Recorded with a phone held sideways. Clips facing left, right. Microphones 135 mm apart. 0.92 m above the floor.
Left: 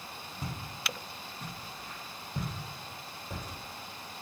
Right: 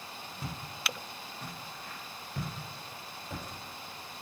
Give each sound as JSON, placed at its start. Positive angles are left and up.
{"t": 0.4, "sound": "footsteps", "side_deg": 10, "distance_m": 0.9}